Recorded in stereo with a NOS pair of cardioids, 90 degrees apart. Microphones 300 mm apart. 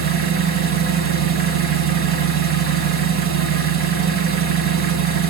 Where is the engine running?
50° right, 1.4 m.